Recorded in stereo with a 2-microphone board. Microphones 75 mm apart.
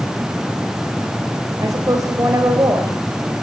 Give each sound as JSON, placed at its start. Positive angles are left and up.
{"t": 1.6, "sound": "a woman speaking", "side_deg": -50, "distance_m": 4.0}